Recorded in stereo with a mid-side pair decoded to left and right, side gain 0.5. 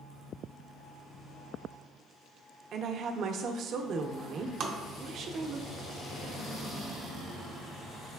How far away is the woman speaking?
About 0.6 m.